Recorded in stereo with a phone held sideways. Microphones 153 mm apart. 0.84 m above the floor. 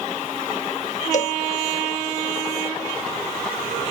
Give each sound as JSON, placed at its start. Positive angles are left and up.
{"t": 1.1, "sound": "a cowbell", "side_deg": 55}